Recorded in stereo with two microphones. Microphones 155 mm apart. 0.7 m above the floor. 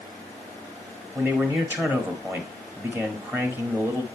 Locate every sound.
1.1 s a man speaking: 15° right (ahead or behind), 1.7 m